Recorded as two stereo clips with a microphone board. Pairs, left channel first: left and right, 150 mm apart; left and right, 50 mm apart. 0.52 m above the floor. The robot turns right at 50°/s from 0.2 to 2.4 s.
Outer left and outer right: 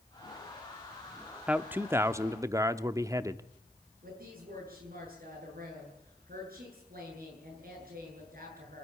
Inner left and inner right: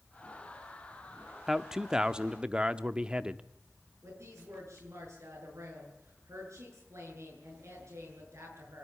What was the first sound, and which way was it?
A man speaking, 5° right (ahead or behind).